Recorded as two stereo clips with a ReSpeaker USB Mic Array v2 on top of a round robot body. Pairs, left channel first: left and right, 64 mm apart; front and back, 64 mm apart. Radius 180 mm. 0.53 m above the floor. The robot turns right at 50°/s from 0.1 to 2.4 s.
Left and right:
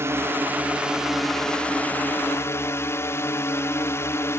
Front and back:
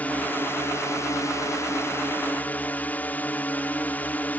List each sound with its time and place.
0.0 s a drone: 60° right; by 4.4 s 55° left